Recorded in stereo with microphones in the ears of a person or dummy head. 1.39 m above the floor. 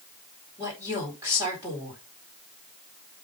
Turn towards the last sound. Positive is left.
turn(degrees=-15)  # may be behind; listen again after turning